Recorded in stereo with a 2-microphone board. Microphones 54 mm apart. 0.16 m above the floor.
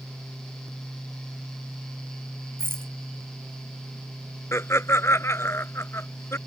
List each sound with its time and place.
2.6 s a rattle: 50° right (ahead or behind)
4.5 s laughter: 55° left (ahead or behind)